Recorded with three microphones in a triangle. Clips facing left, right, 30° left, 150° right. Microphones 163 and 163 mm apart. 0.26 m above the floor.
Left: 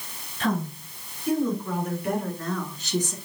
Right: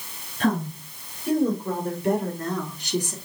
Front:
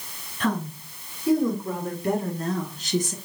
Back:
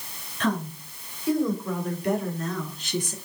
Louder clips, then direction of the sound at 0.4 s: Right 3 dB, even; 50° right.